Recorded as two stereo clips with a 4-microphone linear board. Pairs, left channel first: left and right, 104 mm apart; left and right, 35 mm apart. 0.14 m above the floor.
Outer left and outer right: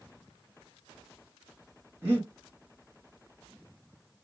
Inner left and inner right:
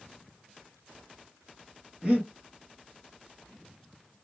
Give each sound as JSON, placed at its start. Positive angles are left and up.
{"t": 2.0, "sound": "breathing", "side_deg": -20, "distance_m": 2.5}